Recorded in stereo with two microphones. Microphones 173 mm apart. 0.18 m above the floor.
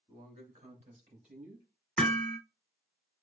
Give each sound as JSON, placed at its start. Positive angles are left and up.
{"t": 0.1, "sound": "a man speaking", "side_deg": -30, "distance_m": 2.0}
{"t": 2.0, "sound": "hammering", "side_deg": 5, "distance_m": 1.2}